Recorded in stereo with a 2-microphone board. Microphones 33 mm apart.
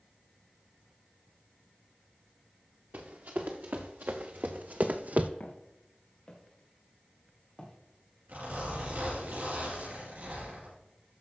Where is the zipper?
80° right, 5 m.